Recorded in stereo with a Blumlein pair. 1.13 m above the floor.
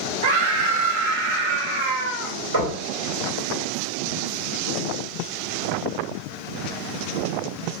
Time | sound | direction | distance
0.2 | a scream | 55° right | 1.2 m
2.5 | knocking | 70° right | 2 m